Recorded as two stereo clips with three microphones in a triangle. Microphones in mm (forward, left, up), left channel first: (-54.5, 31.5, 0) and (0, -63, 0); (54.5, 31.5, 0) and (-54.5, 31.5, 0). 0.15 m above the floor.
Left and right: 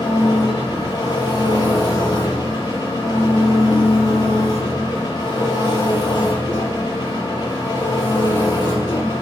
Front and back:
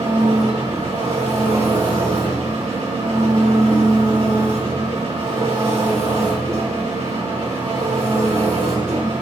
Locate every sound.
0.0 s an engine running: 170° left, 3 m